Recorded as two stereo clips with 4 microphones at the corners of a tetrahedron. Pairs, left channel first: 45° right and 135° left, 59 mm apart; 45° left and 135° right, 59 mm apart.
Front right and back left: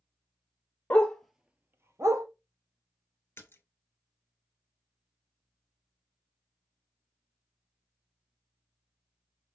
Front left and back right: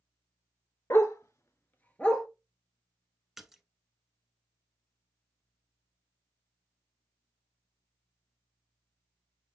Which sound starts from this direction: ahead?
A dog barking, at 0.9 s.